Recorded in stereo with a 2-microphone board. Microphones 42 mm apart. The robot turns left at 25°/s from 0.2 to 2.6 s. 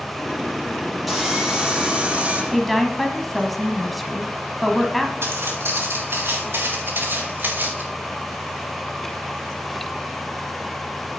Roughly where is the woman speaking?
Centre.